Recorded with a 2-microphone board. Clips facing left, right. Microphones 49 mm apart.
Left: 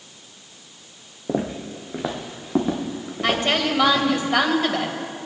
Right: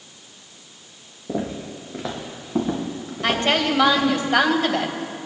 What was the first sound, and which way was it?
Footsteps, 70° left (ahead or behind).